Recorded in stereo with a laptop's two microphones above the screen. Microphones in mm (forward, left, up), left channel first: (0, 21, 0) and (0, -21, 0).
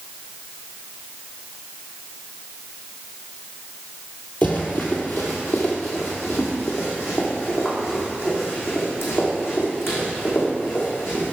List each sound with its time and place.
4.4 s running footsteps: 45° left (ahead or behind), 1.9 m; by 11.3 s 70° left (ahead or behind), 5.5 m